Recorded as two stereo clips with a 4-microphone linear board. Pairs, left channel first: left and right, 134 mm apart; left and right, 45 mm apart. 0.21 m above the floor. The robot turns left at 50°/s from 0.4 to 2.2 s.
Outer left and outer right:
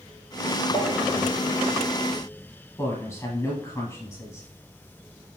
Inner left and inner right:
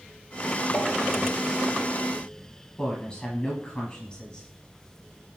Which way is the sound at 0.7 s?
40° left (ahead or behind).